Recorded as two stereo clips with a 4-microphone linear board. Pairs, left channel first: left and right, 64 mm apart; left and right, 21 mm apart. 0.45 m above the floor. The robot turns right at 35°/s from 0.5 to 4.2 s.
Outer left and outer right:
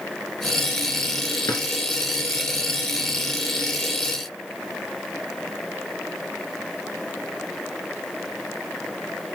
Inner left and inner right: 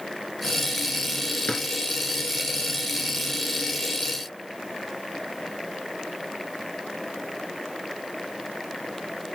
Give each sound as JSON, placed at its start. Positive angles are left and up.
{"t": 1.5, "sound": "a drawer", "side_deg": 75, "distance_m": 2.0}